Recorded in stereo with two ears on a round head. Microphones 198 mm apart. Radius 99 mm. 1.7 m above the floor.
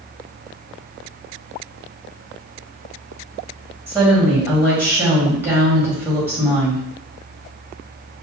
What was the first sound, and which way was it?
A woman speaking, 10° right (ahead or behind).